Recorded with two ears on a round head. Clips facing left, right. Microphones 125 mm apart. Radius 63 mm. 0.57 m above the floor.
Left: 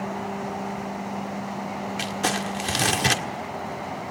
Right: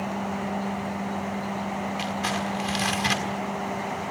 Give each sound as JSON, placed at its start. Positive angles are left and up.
{"t": 2.0, "sound": "crumpling", "side_deg": 55, "distance_m": 1.6}